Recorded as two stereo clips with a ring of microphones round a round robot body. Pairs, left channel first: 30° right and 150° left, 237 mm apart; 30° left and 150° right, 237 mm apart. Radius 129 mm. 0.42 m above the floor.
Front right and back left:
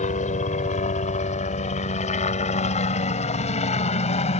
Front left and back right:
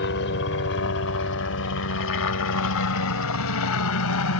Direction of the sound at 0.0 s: 20° left.